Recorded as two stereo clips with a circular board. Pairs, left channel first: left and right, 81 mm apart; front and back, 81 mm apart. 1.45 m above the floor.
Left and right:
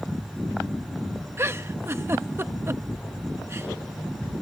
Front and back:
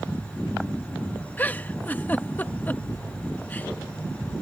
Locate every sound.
1.4 s a giggle: 55° right